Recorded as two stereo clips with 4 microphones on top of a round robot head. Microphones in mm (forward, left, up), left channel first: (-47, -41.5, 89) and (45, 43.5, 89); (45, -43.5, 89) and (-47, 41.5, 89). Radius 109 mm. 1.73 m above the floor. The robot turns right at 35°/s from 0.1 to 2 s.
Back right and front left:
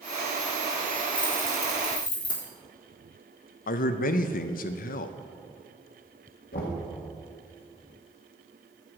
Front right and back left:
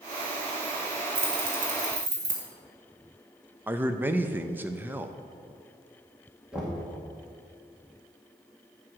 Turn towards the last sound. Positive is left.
turn(degrees=-140)